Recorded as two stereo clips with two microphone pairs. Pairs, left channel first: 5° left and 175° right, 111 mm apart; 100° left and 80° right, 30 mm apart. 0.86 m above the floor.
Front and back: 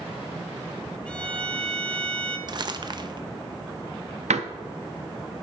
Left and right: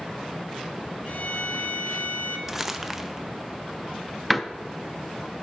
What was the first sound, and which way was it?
A violin, 85° left.